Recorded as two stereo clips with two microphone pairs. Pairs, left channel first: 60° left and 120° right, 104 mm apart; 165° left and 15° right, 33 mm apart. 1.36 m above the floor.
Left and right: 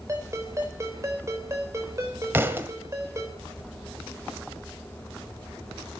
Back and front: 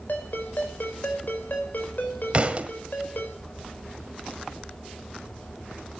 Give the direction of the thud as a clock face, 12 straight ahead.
2 o'clock.